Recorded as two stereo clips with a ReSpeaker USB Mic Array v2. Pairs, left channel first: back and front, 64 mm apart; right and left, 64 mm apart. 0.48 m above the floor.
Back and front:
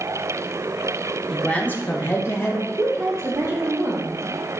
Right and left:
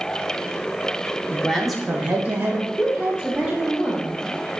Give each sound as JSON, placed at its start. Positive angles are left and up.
{"t": 1.3, "sound": "a man speaking", "azimuth_deg": -105, "distance_m": 1.0}
{"t": 2.8, "sound": "a woman speaking", "azimuth_deg": -10, "distance_m": 1.5}